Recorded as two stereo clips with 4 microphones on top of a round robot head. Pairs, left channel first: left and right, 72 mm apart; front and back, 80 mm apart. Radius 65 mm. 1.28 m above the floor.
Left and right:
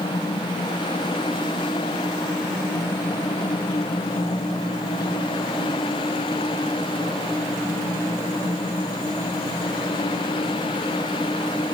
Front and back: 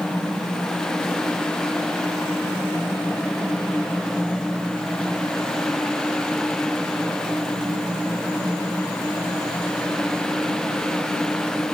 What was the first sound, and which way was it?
Only background noise.